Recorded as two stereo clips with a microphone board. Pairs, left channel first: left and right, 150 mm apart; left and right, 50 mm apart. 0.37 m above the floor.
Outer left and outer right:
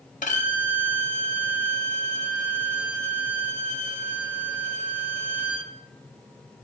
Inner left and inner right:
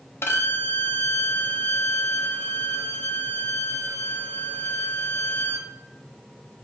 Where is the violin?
60° left (ahead or behind), 0.8 m.